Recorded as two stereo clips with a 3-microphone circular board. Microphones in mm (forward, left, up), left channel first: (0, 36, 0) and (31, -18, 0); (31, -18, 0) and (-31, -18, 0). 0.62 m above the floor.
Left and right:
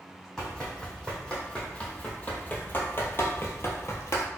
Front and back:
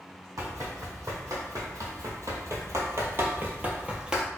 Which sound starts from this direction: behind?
Running footsteps, at 0.4 s.